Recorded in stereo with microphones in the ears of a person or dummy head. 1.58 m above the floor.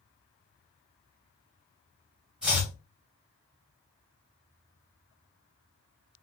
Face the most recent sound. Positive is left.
turn(degrees=-10)  # may be behind; listen again after turning